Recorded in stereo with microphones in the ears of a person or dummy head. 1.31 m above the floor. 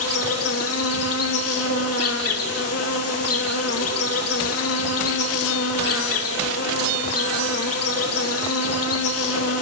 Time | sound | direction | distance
0.0 | an insect | 75° left (ahead or behind) | 2.5 m